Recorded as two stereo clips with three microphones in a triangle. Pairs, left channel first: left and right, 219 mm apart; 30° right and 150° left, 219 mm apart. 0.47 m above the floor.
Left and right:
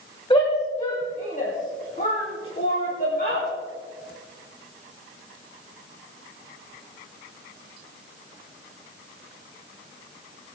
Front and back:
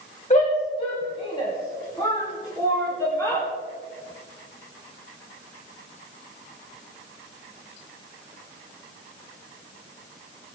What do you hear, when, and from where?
0.3 s a shout: 25° left, 2.5 m; by 3.5 s 45° left, 4 m